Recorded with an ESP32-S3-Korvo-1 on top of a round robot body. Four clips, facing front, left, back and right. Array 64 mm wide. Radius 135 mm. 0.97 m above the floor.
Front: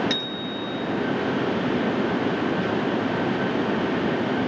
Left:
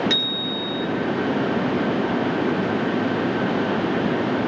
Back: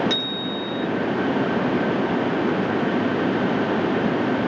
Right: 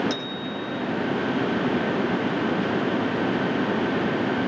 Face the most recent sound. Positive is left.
turn(degrees=45)